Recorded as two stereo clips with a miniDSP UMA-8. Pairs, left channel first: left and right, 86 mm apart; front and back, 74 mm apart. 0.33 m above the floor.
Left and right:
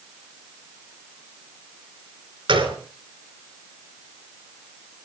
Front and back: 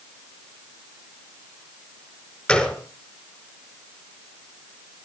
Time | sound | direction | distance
2.5 | a gunshot | 75° right | 3.5 m